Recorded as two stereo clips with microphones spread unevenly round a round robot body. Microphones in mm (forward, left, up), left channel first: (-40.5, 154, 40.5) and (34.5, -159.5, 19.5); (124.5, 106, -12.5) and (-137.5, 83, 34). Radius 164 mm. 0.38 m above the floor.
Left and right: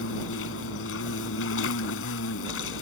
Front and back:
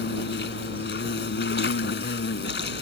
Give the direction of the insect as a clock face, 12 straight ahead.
10 o'clock.